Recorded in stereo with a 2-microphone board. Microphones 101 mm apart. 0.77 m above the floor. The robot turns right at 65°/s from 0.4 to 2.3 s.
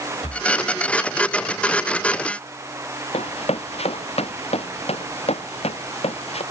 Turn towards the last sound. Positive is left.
turn(degrees=85)